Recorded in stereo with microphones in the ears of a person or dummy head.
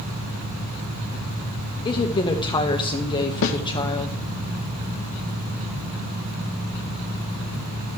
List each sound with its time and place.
1.9 s a woman speaking: 20° left (ahead or behind), 1.1 m
3.4 s a snare drum: 70° left (ahead or behind), 0.7 m